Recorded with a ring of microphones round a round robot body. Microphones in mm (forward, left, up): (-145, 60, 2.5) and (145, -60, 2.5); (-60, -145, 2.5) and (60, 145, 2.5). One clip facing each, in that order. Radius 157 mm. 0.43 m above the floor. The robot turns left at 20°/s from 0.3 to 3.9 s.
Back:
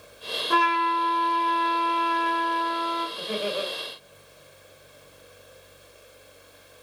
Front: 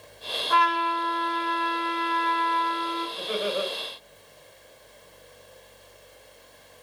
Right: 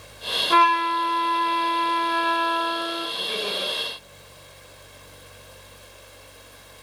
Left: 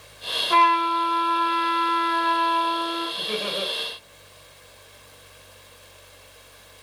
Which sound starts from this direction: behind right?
A trumpet, at 0.5 s.